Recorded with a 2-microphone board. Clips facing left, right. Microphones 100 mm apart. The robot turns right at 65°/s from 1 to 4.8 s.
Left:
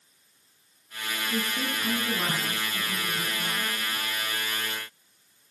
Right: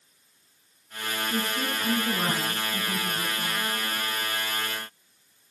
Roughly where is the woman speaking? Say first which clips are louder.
Even; centre.